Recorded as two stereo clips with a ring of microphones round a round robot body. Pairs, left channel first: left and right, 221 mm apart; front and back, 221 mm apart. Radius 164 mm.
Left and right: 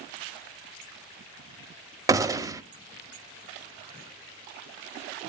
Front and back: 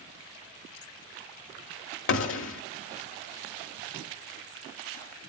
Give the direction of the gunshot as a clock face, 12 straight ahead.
12 o'clock.